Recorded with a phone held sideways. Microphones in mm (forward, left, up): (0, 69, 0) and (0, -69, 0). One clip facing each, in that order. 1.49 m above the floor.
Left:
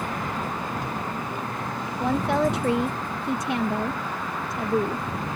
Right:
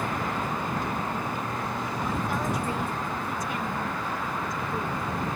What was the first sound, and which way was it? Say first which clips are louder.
A woman speaking: left 9 dB; 75° left (ahead or behind).